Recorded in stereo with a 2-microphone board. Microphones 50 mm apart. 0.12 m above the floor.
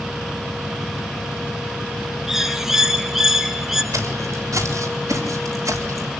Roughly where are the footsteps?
Right.